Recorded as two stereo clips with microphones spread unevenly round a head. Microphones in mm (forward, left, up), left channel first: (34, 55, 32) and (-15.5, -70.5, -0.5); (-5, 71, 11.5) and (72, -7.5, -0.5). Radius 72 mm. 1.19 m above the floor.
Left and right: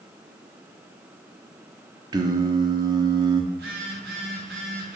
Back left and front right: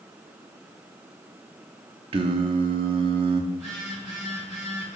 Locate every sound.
2.1 s singing: 50° right, 0.8 m
3.5 s a phone buzzing: 135° right, 3 m